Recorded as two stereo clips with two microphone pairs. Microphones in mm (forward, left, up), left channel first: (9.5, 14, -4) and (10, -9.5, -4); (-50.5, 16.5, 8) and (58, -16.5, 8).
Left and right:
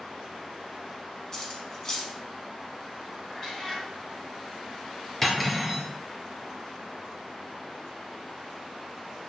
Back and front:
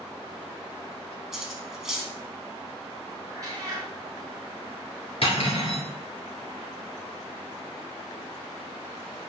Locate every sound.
1.3 s cutlery clinking: 65° left, 0.6 m
3.3 s a cat meowing: 35° left, 1.2 m
5.2 s cutlery clinking: 165° left, 1.7 m